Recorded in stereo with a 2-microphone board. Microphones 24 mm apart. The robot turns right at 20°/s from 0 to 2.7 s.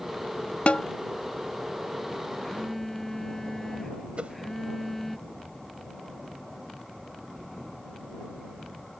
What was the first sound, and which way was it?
A snare drum, 65° left (ahead or behind).